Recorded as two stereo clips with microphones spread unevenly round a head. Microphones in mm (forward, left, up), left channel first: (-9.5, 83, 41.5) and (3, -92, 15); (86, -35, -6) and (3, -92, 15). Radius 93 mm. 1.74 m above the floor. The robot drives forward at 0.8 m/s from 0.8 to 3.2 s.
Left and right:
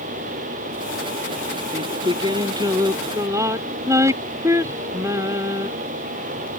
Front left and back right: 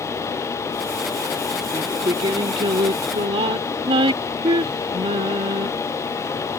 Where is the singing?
150° right; by 5.7 s 165° right.